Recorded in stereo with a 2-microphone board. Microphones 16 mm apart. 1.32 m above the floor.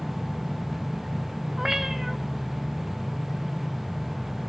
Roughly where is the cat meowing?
Right.